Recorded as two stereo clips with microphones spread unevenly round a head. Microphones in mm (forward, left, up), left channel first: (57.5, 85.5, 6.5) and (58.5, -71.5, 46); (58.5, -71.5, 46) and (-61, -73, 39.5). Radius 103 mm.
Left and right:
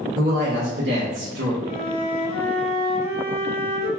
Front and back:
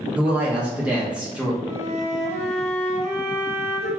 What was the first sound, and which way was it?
A woman speaking, 100° right.